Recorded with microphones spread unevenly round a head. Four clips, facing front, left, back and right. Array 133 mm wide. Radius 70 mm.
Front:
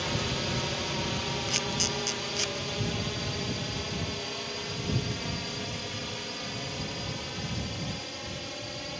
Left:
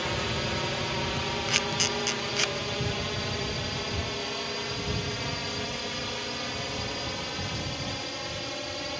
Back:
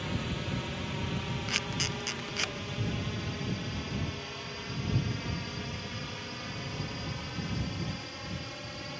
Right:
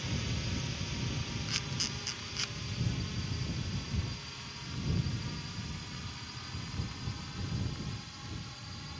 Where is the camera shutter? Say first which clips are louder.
Left 11 dB, front 3 dB; 105° left.